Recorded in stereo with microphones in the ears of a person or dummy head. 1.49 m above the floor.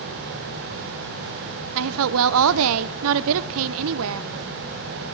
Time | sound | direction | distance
1.8 | a woman speaking | 75° right (ahead or behind) | 0.6 m